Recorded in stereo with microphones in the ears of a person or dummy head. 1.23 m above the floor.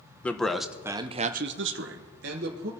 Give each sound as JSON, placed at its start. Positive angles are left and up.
{"t": 0.2, "sound": "a man speaking", "side_deg": 10, "distance_m": 1.0}